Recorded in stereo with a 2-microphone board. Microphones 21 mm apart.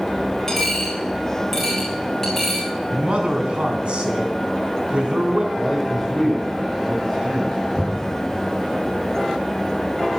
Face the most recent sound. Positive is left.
turn(degrees=-25)  # may be behind; listen again after turning